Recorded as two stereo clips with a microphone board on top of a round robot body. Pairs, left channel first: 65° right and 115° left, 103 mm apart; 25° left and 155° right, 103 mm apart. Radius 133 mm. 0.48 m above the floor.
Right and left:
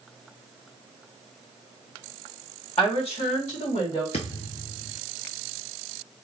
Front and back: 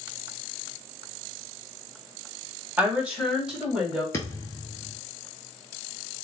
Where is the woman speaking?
85° right, 2.5 m; by 4.0 s 70° right, 3 m.